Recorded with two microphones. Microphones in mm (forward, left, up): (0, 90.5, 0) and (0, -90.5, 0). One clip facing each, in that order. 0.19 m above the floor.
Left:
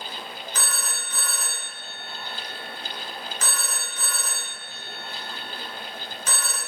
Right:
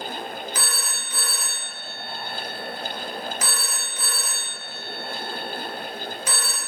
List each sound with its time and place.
0.6 s a phone ringing: 10° right (ahead or behind), 0.9 m